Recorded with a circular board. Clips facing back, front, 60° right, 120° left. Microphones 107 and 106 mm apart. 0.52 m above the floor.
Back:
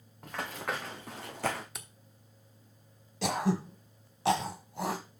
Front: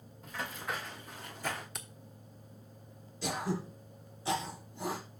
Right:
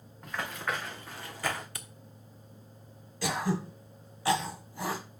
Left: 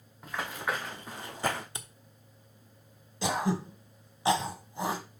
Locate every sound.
0.2 s running footsteps: 155° right, 2.5 m; by 1.6 s straight behind, 1.8 m
1.8 s a camera shutter: 95° left, 1.0 m
3.2 s throat clearing: 175° right, 1.5 m